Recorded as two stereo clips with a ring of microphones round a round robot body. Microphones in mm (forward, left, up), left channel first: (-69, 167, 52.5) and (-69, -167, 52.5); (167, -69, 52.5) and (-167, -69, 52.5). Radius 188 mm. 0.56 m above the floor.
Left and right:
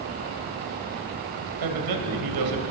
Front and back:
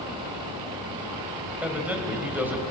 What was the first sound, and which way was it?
A man speaking, 95° right.